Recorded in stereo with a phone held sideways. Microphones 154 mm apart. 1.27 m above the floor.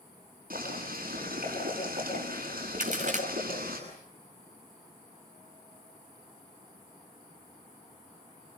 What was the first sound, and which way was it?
Boiling, 70° right (ahead or behind).